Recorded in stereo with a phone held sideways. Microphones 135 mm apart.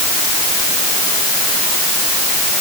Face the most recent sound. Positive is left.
No sound to turn to.